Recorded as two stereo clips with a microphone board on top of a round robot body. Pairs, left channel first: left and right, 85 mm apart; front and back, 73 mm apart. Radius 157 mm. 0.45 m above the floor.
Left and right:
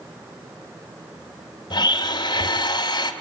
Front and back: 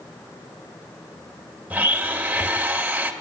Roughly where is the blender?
Left.